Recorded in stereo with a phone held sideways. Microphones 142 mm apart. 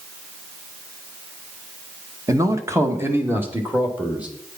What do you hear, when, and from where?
2.3 s a man speaking: 25° right (ahead or behind), 1.1 m; by 4.3 s 10° right (ahead or behind), 2 m